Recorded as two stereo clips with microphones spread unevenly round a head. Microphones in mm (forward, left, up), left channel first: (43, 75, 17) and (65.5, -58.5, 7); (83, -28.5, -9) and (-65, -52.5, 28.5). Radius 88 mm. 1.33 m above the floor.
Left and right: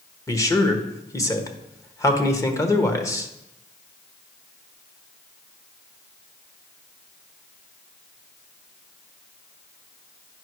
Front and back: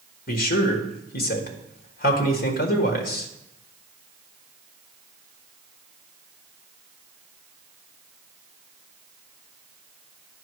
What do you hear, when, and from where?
0.3 s a man speaking: 30° left, 1.4 m